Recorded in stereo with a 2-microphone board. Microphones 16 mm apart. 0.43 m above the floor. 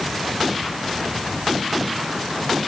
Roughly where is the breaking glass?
No breaking glass in this recording.